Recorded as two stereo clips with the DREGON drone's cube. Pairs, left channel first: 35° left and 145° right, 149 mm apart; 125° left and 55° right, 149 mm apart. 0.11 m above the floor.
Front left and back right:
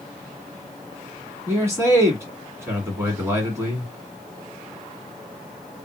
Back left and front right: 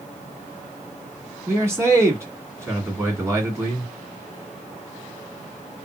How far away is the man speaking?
About 1.8 m.